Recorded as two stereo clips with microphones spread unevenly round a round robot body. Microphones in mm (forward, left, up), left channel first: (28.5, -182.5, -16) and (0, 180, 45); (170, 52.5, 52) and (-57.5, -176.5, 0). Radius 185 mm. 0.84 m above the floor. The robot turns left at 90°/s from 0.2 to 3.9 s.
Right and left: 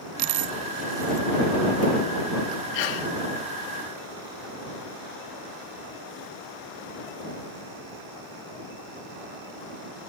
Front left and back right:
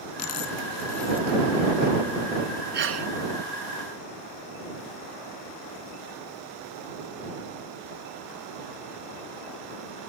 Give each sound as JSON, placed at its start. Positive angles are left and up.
{"t": 0.2, "sound": "a dropped coin", "azimuth_deg": 90}
{"t": 2.7, "sound": "a sneeze", "azimuth_deg": -70}